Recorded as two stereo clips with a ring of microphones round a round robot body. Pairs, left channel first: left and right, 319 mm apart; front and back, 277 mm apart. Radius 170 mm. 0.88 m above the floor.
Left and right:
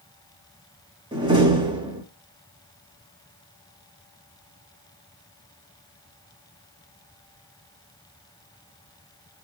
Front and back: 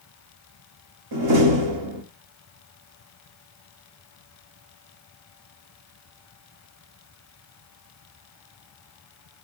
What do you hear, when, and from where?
1.1 s a door slam: 165° right, 1.6 m